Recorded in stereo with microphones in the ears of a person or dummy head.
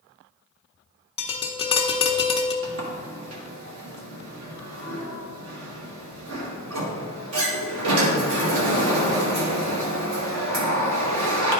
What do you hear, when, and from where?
1.2 s tapping: 25° left (ahead or behind), 0.6 m
2.6 s a sliding door: 65° right (ahead or behind), 1.7 m